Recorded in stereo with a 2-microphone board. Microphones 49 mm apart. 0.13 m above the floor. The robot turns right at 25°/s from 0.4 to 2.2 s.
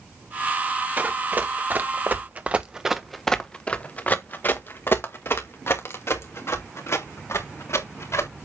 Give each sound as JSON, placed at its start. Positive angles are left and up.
{"t": 1.0, "sound": "running footsteps", "side_deg": -30, "distance_m": 1.6}